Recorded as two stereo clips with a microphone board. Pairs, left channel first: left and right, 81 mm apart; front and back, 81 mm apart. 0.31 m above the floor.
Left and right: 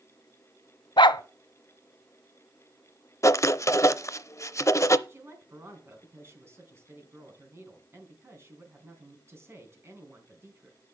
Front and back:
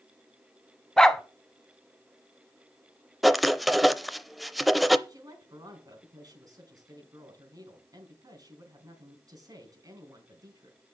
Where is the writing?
90° left, 0.6 m.